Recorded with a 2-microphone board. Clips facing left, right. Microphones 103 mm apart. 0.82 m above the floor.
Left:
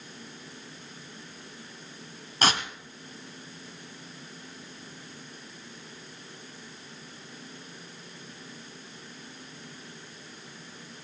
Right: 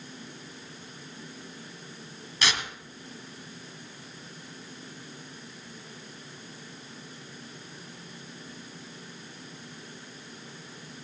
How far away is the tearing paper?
About 1.7 m.